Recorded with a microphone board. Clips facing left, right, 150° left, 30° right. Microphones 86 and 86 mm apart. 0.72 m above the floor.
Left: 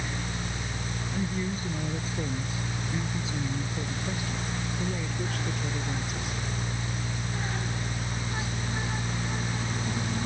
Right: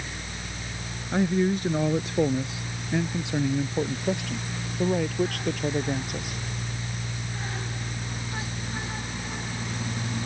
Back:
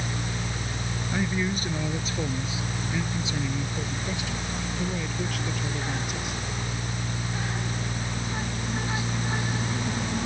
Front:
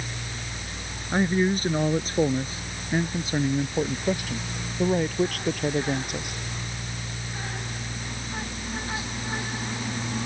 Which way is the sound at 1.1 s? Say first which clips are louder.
Right 10 dB, front 6 dB; 80° right.